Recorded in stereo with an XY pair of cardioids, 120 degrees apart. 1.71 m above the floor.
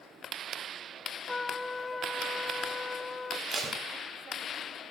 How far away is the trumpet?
About 0.9 m.